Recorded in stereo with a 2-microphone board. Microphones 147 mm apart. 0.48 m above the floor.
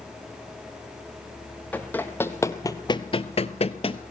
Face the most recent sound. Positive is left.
turn(degrees=40)  # may be behind; listen again after turning